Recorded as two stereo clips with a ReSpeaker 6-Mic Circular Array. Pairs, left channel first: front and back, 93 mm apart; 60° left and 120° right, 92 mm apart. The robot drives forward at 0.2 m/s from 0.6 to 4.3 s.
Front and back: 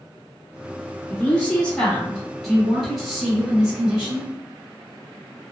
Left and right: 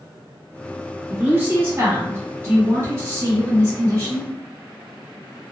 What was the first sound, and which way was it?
A woman speaking, 65° right.